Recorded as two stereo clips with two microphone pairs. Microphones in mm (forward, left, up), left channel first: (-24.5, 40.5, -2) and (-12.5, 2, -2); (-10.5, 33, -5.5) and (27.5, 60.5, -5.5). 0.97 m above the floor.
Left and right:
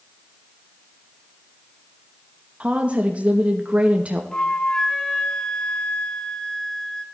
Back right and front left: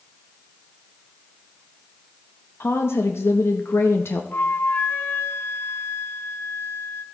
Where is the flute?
175° left, 1.1 m.